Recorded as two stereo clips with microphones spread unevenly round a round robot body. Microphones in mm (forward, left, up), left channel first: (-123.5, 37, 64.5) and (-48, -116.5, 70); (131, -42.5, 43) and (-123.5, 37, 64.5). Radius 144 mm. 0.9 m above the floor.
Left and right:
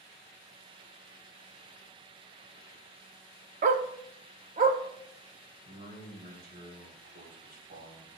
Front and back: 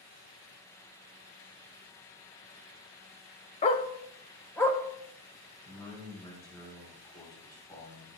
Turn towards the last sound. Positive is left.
turn(degrees=-95)